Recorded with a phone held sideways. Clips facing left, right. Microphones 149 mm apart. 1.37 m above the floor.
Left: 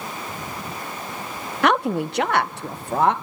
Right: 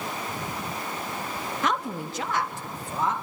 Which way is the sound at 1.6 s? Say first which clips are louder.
Left 10 dB; 70° left (ahead or behind).